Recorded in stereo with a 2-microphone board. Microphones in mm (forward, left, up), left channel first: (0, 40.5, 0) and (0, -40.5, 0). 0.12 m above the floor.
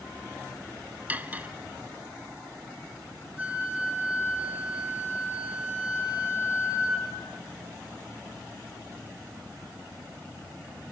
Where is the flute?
15° right (ahead or behind), 6.5 m.